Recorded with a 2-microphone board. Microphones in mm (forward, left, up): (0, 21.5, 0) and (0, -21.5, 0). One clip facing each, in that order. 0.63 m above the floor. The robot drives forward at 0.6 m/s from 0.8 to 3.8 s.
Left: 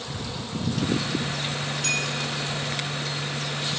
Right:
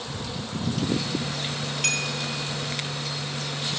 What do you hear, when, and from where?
1.8 s a clink: 55° right (ahead or behind), 1.5 m; by 2.1 s 60° right (ahead or behind), 1.4 m